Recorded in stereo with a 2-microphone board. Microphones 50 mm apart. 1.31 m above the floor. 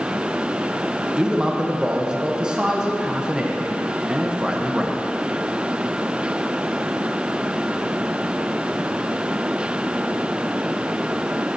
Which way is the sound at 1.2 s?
15° right (ahead or behind).